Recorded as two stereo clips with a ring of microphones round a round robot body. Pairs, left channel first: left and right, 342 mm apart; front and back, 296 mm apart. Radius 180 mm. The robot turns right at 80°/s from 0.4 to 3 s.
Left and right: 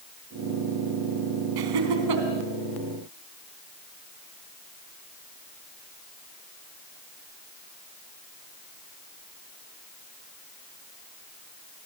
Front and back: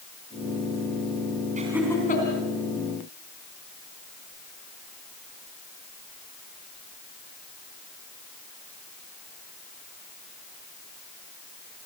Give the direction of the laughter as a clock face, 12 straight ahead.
4 o'clock.